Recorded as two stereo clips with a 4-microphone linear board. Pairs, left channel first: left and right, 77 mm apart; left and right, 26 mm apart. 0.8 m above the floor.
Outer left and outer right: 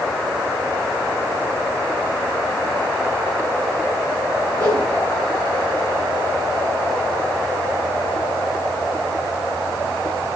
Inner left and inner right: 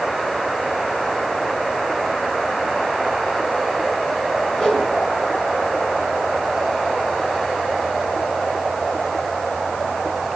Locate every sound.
4.6 s a whoosh: 55° left (ahead or behind), 3 m